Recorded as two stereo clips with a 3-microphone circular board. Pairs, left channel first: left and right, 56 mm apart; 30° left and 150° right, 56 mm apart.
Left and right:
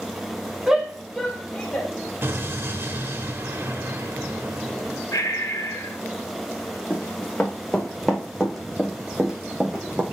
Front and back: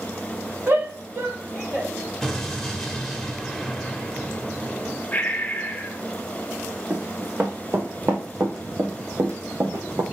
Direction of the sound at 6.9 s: 155° left.